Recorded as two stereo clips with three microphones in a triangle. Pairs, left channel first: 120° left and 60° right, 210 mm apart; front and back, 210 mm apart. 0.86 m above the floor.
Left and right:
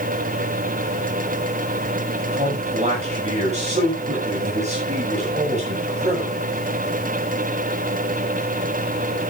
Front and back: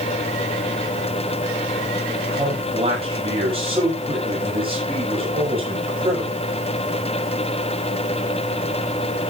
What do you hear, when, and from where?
2.3 s a man speaking: 115° right, 6 m